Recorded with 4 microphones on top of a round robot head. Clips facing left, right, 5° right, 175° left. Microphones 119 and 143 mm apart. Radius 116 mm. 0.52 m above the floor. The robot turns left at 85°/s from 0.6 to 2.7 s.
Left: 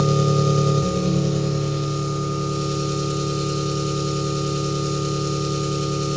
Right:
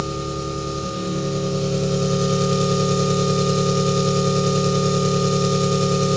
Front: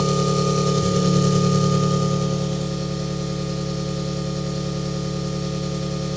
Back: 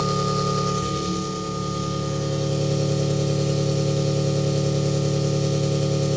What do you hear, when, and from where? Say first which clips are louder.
0.0 s an engine running: left 7 dB, front 3 dB; 65° left, 1.4 m; by 6.2 s 115° right, 1.4 m